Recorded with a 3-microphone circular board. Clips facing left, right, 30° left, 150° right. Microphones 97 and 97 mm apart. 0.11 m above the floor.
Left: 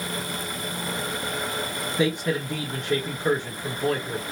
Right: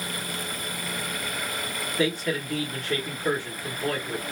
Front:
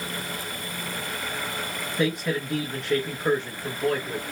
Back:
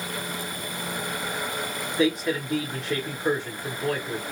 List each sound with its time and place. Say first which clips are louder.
2.0 s a man speaking: left 2 dB, back 2 dB; 120° left, 1.1 m